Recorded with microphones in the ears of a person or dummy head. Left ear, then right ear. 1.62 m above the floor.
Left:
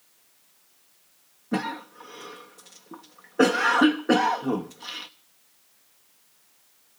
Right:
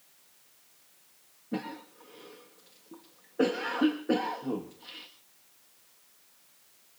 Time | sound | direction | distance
1.5 | a cough | 50° left (ahead or behind) | 0.7 m